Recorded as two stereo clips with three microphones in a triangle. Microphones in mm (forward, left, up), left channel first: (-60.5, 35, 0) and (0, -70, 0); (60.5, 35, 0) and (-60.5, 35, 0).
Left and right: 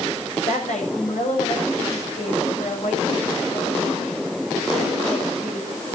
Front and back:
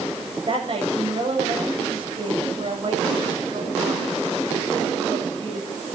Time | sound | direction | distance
0.5 | a woman speaking | 135° left | 8 m